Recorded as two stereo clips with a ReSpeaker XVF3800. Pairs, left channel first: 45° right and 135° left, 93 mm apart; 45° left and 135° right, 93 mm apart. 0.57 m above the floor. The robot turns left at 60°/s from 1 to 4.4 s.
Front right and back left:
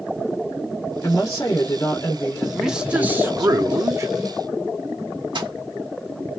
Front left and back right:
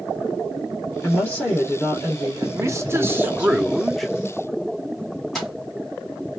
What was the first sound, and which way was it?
A woman speaking, 5° left.